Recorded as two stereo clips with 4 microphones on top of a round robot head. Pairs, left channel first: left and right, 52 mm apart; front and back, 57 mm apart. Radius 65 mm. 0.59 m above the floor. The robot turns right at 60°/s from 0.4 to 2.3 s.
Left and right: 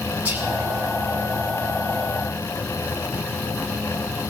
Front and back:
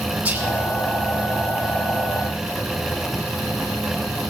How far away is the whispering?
About 1.3 m.